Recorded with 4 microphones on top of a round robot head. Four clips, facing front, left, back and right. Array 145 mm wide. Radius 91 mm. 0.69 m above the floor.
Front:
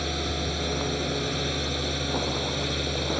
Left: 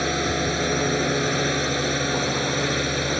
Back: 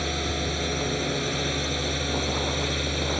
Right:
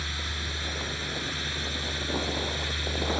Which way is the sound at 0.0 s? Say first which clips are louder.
Left 14 dB, back 1 dB; 90° left.